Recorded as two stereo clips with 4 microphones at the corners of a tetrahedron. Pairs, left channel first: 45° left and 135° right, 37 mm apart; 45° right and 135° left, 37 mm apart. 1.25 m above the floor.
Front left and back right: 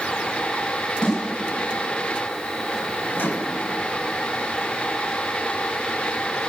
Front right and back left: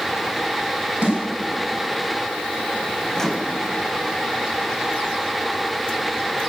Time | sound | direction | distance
1.0 | a snare drum | 110° left | 5.5 m
3.1 | a microwave | 35° left | 1.1 m